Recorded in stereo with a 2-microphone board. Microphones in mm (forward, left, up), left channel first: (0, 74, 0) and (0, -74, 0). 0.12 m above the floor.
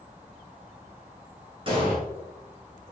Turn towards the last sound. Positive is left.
turn(degrees=-35)  # may be behind; listen again after turning